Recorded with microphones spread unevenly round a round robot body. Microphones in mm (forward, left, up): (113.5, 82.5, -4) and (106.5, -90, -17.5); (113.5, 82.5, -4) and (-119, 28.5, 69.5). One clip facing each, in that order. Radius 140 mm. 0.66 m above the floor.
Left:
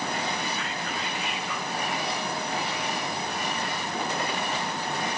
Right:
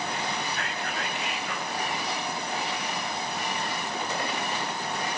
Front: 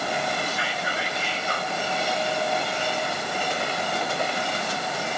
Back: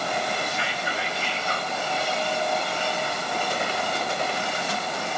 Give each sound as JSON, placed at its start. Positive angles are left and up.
{"t": 0.5, "sound": "whispering", "azimuth_deg": -70, "distance_m": 5.5}